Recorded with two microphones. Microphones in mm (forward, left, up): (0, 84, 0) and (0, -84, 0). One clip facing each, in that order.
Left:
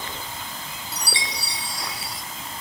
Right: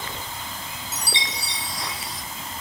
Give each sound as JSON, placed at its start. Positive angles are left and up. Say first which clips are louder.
{"t": 0.9, "sound": "a chime", "louder": "even", "side_deg": -20, "distance_m": 0.5}